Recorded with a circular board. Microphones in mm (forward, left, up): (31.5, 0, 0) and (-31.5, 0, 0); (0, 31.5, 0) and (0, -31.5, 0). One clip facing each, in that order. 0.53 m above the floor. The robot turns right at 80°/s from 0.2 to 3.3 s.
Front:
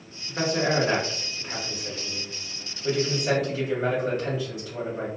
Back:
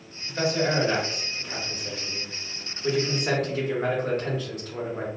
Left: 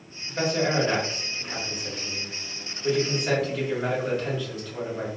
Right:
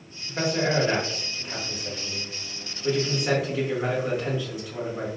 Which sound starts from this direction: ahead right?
A man speaking, at 0.3 s.